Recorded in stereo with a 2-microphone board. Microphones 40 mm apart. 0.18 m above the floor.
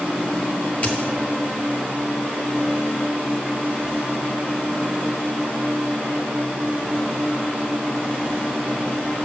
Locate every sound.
0.8 s a dropped coin: 35° left (ahead or behind), 0.9 m